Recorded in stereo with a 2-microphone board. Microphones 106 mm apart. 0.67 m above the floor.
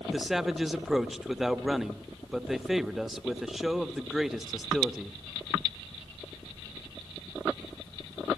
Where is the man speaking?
Centre (ahead or behind), 0.8 m.